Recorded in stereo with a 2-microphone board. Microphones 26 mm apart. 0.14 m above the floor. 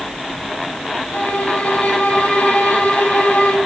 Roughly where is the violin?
Left.